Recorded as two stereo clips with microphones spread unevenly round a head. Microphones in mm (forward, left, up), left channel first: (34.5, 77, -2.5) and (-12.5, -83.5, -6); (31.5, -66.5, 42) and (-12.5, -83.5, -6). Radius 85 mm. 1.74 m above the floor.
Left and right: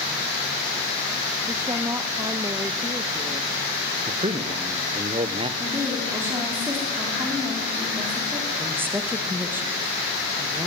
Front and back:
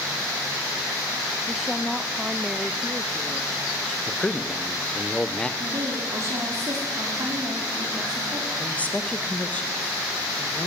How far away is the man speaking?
About 1.3 m.